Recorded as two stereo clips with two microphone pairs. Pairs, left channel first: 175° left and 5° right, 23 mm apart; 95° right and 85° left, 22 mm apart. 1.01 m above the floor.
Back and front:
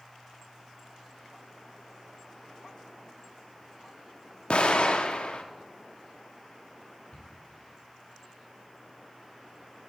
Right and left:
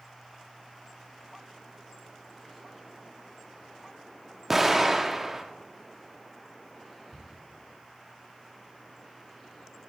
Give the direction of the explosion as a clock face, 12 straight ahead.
7 o'clock.